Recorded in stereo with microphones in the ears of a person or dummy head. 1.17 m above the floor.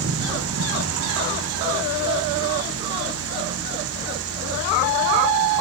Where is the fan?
75° right (ahead or behind), 1.0 m.